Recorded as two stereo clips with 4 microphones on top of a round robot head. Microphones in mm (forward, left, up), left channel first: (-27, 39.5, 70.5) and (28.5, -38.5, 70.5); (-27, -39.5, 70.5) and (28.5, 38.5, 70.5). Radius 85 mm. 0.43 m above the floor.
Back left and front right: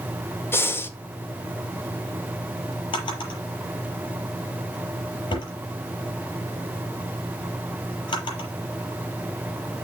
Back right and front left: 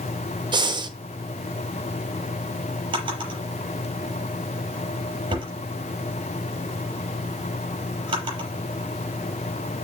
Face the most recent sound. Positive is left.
turn(degrees=90)